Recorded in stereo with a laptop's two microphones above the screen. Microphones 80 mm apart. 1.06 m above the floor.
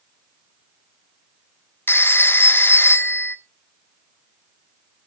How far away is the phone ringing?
About 1.0 m.